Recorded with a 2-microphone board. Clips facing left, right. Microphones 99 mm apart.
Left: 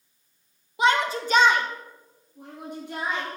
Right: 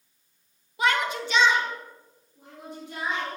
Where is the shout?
20° left (ahead or behind), 1.3 m; by 3.4 s 50° left (ahead or behind), 2.5 m.